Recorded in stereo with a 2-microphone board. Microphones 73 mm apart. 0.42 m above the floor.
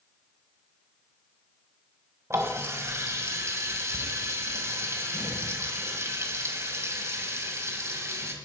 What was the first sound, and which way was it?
A running tap, 40° right (ahead or behind).